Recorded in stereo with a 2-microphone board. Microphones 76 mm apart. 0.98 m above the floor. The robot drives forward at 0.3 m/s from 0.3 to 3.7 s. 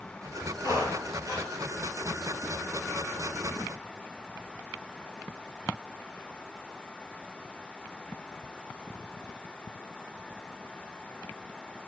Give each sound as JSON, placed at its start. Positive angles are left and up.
{"t": 0.6, "sound": "a squeak", "side_deg": -50, "distance_m": 3.0}